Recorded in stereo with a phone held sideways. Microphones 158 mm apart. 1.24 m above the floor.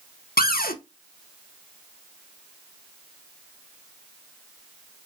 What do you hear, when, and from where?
0.4 s a cupboard door: 70° left (ahead or behind), 0.6 m